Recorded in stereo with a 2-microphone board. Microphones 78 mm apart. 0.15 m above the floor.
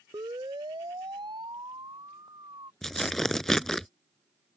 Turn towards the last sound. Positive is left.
turn(degrees=5)  # may be behind; listen again after turning